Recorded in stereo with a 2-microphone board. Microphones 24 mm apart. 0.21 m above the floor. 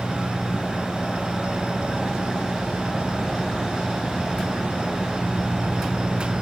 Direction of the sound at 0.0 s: 35° left (ahead or behind).